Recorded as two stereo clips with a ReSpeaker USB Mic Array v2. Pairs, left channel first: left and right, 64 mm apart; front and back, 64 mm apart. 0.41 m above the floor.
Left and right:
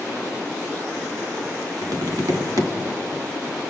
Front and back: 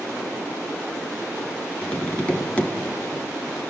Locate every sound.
1.8 s tapping: 70° right, 1.9 m